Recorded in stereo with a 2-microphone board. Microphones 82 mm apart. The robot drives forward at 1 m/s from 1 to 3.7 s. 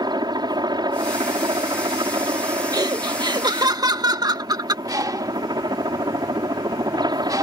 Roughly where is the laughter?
Right.